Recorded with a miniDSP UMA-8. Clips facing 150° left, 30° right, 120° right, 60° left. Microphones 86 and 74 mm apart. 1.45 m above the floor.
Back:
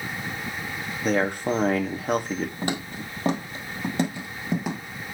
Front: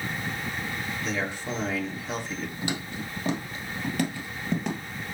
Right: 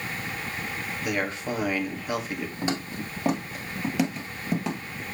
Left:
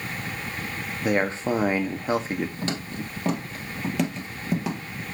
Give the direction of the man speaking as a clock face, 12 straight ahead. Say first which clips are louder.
Back 10 dB, left 6 dB; 8 o'clock.